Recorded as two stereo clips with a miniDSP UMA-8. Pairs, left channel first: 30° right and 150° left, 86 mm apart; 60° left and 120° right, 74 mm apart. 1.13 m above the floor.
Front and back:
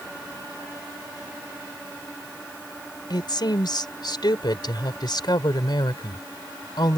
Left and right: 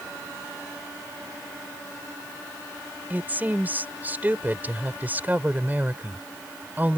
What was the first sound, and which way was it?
A woman speaking, 55° right.